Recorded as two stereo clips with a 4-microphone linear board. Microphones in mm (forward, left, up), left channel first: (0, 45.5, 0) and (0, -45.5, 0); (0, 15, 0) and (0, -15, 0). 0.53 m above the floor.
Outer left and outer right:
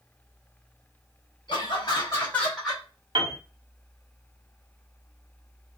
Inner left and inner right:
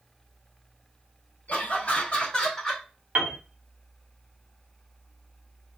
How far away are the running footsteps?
No running footsteps in this recording.